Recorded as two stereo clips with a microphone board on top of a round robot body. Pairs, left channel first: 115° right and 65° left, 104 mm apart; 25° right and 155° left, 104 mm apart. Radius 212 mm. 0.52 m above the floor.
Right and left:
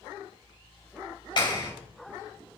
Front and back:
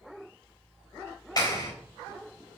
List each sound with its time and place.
1.4 s a clap: 75° right, 4 m